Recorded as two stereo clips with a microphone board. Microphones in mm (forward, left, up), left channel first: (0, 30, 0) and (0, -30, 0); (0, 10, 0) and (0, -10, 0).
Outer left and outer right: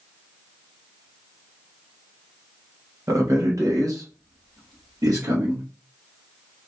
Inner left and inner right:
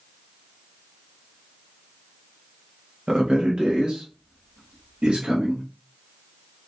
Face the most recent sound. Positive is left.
turn(degrees=-75)  # may be behind; listen again after turning